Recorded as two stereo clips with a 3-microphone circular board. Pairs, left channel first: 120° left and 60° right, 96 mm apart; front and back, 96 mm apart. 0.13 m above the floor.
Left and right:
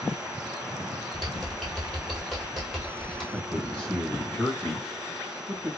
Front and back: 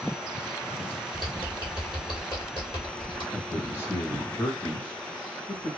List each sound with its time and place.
1.1 s typing on a keyboard: 35° left, 1.3 m
3.3 s a man speaking: 45° left, 1.3 m